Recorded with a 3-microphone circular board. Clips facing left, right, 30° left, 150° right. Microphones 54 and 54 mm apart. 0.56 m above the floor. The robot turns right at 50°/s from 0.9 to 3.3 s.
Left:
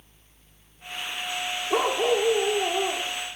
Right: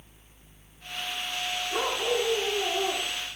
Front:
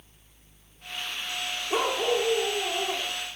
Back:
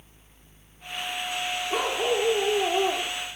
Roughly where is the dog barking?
Left.